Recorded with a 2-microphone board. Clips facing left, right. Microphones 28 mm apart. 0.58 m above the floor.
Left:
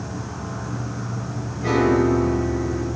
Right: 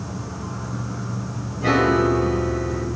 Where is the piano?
40° right (ahead or behind), 1.9 m.